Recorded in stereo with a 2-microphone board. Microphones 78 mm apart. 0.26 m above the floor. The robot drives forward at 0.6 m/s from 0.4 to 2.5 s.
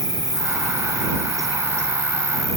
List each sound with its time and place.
0.0 s an insect: 70° left (ahead or behind), 1.7 m; by 2.6 s 40° left (ahead or behind), 2.5 m